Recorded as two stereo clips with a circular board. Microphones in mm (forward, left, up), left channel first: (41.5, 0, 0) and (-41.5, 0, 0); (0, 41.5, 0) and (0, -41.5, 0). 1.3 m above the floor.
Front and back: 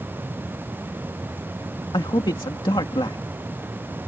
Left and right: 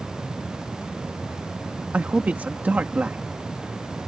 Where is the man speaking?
20° right.